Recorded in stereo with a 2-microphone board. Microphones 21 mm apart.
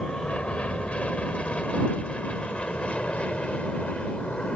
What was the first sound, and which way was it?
An aircraft, 70° left (ahead or behind).